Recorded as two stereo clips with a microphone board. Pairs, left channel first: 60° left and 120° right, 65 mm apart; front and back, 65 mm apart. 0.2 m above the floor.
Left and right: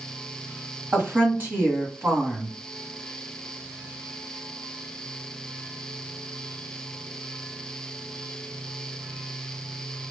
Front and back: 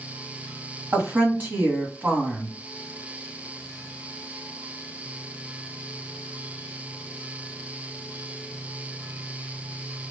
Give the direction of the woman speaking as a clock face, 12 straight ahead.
5 o'clock.